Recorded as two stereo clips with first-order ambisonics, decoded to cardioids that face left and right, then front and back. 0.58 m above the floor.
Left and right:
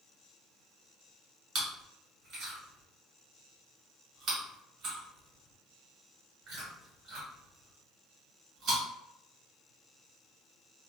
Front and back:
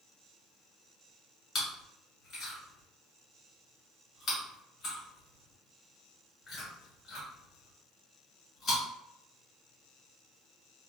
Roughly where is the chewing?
Ahead right.